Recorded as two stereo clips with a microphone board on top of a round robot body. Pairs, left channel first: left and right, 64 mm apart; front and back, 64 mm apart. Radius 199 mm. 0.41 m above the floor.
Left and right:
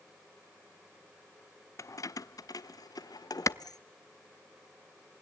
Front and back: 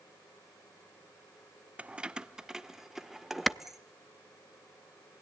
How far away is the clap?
About 0.8 m.